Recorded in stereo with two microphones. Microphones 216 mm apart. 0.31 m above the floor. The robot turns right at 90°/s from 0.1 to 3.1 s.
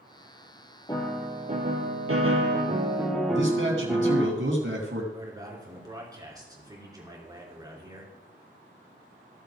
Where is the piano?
160° left, 1.9 m; by 4.3 s straight ahead, 1.9 m.